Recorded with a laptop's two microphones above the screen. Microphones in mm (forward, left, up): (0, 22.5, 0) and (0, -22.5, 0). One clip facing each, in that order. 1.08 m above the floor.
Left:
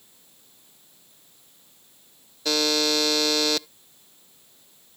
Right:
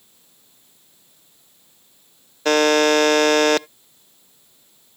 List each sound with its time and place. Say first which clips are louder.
2.5 s a buzzer: right 9 dB; 55° right (ahead or behind)